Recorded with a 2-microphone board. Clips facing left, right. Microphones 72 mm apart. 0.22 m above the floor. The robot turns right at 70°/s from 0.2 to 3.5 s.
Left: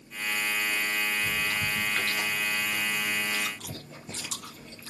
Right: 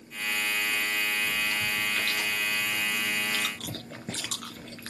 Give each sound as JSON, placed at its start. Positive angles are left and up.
{"t": 1.2, "sound": "chewing", "side_deg": 70, "distance_m": 2.5}